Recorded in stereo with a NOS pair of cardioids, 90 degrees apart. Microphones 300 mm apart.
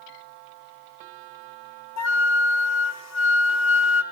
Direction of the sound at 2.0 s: 60° left.